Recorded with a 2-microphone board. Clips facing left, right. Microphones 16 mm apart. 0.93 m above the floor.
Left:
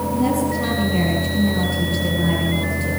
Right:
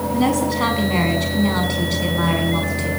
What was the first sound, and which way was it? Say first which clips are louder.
A woman speaking: right 2 dB; 50° right (ahead or behind).